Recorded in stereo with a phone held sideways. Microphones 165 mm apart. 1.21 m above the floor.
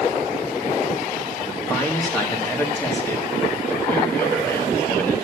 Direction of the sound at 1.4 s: 10° left (ahead or behind).